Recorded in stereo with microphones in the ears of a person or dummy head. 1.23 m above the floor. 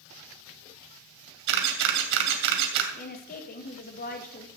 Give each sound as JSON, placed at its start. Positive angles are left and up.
{"t": 1.5, "sound": "a camera shutter", "side_deg": -65, "distance_m": 2.5}
{"t": 2.9, "sound": "a woman speaking", "side_deg": 45, "distance_m": 1.7}